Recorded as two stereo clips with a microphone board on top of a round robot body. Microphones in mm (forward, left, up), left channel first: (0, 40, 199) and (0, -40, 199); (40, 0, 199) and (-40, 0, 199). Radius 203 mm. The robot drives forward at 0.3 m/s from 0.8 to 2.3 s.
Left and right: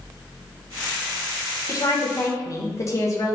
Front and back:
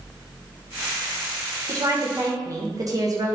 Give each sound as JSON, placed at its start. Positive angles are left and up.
{"t": 1.7, "sound": "a woman speaking", "azimuth_deg": 135, "distance_m": 1.7}